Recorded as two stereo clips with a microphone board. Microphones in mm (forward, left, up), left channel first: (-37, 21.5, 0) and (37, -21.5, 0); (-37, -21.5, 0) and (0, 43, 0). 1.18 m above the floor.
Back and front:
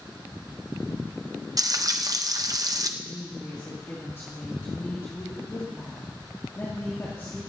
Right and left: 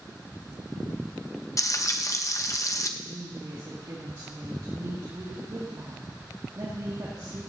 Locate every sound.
1.6 s frying: 75° right, 0.8 m
3.0 s a woman speaking: 90° left, 2.5 m